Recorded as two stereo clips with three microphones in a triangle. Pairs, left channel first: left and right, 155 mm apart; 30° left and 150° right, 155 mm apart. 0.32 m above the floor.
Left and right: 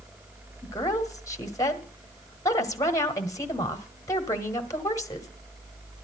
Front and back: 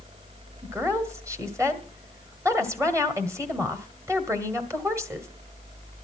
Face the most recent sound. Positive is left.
turn(degrees=150)